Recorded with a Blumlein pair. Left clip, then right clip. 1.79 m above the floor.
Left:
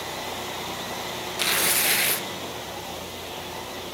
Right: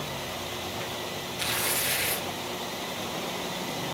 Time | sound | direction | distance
1.4 | tearing paper | 60° left | 2 m